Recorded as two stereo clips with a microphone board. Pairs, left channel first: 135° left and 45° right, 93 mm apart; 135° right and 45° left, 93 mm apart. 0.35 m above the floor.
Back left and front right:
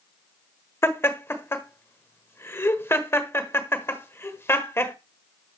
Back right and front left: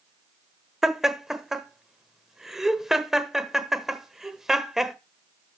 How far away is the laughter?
About 1.2 m.